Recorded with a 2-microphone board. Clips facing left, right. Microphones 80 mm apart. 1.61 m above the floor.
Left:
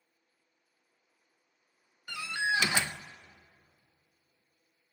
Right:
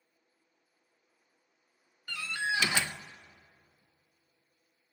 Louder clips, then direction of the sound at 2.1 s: Left 2 dB; 15° left (ahead or behind).